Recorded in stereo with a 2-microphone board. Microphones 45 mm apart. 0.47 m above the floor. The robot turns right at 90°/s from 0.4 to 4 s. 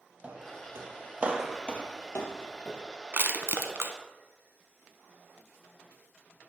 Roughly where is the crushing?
Right.